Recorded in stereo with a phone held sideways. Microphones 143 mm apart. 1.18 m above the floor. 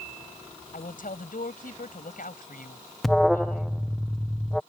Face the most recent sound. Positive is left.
turn(degrees=0)  # may be behind; listen again after turning